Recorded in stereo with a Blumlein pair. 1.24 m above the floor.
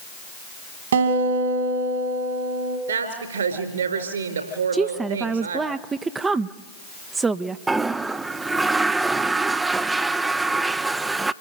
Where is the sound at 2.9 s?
65° right, 4 m.